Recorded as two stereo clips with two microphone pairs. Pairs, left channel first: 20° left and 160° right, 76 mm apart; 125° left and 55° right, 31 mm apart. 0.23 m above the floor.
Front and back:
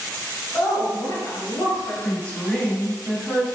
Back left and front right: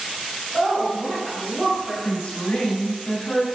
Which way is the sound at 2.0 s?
90° left.